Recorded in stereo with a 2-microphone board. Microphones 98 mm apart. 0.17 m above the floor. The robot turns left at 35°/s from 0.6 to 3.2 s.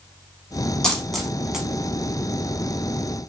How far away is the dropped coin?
About 0.7 m.